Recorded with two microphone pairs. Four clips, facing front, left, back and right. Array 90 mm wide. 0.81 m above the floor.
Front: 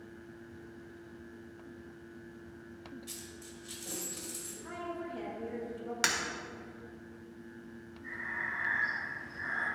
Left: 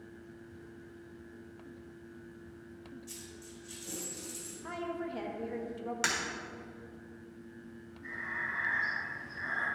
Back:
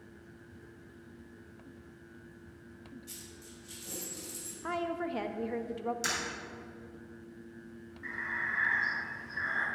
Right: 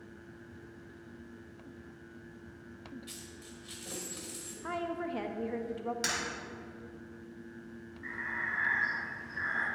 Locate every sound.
3.1 s a dropped coin: 55° right, 1.7 m
4.6 s a woman speaking: 160° right, 0.7 m
6.0 s breaking glass: 20° left, 1.8 m
8.0 s breathing: 145° right, 3 m